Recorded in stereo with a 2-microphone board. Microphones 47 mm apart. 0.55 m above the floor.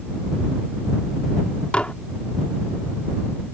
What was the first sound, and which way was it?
Dishes clattering, 25° left (ahead or behind).